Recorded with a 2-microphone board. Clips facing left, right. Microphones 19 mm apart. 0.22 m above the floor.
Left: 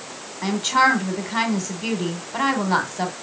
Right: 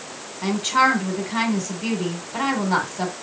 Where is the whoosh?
I don't hear a whoosh.